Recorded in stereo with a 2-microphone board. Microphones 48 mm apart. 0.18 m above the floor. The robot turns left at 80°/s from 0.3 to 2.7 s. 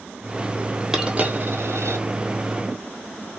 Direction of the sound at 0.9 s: 10° right (ahead or behind).